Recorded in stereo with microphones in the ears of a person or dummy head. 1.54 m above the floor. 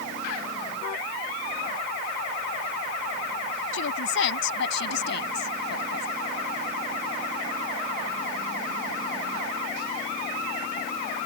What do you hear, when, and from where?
3.7 s a woman speaking: 75° left (ahead or behind); by 6.1 s 60° left (ahead or behind)